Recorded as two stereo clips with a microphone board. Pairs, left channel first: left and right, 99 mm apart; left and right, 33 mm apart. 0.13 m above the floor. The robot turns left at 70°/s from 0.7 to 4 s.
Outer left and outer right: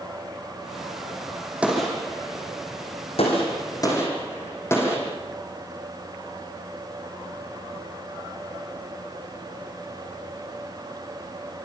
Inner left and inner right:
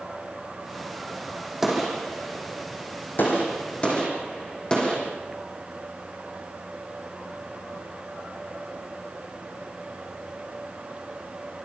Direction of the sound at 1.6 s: 15° right (ahead or behind).